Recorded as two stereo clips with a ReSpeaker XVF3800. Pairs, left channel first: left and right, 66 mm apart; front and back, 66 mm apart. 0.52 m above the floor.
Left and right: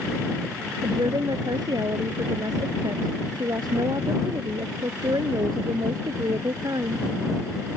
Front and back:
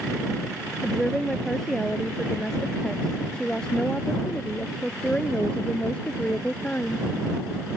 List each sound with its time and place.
0.8 s a woman speaking: 85° right; by 7.1 s 70° right